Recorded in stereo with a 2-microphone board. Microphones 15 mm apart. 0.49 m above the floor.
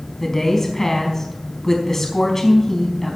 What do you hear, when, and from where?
0.2 s a woman speaking: 25° left (ahead or behind), 4.5 m